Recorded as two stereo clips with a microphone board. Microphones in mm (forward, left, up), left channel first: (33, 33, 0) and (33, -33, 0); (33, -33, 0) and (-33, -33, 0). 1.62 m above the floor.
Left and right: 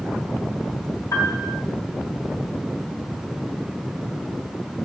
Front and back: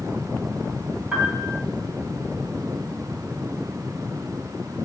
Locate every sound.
1.1 s a piano: 110° left, 2.5 m